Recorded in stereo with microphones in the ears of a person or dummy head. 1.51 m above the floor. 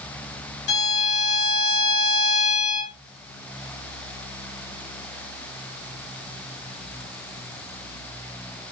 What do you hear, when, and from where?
0.7 s a violin: 60° left (ahead or behind), 0.9 m